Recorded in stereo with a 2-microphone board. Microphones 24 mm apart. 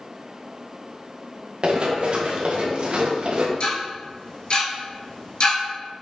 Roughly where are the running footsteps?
Right.